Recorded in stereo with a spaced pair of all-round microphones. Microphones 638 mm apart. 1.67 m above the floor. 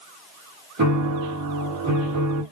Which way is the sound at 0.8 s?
30° right (ahead or behind).